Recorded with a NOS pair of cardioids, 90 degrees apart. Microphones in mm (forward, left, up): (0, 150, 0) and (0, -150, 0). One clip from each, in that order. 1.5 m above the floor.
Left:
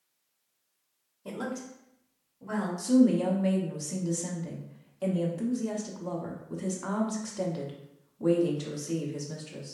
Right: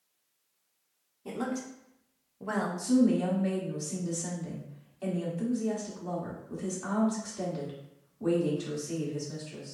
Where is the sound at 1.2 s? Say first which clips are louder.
Right 1 dB; 10° left, 0.7 m; by 2.7 s 80° right, 1.0 m.